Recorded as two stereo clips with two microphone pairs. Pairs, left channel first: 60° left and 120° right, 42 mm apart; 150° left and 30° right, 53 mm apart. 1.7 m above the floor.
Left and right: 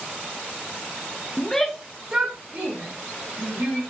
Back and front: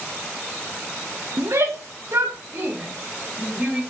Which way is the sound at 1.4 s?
10° right.